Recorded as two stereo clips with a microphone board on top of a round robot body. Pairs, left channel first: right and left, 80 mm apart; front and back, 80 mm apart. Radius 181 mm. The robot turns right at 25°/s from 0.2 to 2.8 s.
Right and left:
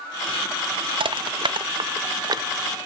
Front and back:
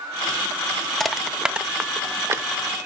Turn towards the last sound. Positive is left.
turn(degrees=130)